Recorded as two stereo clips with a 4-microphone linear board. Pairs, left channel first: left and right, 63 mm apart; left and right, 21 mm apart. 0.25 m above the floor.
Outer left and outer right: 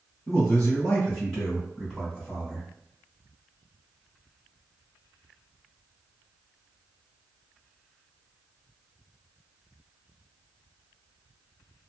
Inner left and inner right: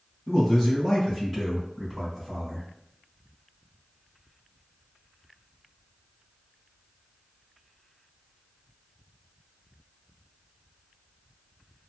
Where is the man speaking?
15° left (ahead or behind), 1.7 m; by 2.7 s centre (ahead or behind), 1.6 m.